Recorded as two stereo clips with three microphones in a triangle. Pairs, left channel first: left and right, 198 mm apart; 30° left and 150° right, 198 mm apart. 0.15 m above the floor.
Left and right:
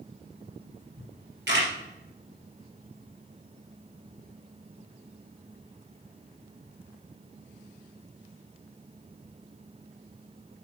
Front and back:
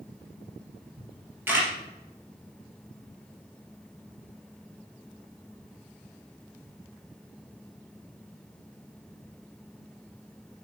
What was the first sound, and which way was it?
A camera shutter, 70° right.